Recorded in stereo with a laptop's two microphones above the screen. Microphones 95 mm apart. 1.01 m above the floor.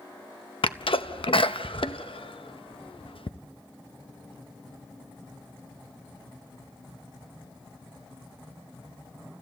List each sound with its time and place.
0.6 s a sneeze: 70° left (ahead or behind), 0.8 m